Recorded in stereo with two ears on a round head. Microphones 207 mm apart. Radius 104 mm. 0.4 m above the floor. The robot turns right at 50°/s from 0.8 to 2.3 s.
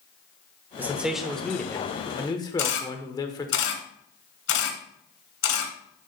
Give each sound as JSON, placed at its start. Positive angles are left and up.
{"t": 0.8, "sound": "a man speaking", "side_deg": -10, "distance_m": 1.0}
{"t": 2.6, "sound": "a camera shutter", "side_deg": 60, "distance_m": 2.5}